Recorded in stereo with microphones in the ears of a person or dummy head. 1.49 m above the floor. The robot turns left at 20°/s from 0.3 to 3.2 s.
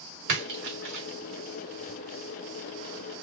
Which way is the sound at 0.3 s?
50° right (ahead or behind).